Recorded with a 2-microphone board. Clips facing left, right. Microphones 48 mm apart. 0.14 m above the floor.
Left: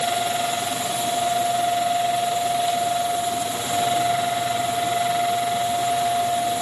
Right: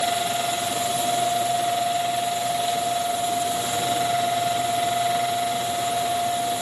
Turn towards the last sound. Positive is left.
No sound to turn to.